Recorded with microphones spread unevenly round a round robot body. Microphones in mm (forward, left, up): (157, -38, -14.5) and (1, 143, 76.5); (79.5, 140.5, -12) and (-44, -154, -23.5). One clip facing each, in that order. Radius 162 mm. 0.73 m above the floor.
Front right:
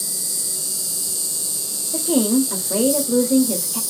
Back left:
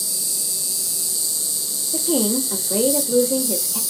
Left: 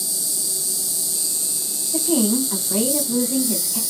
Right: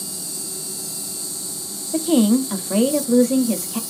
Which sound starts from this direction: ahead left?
An insect, at 0.0 s.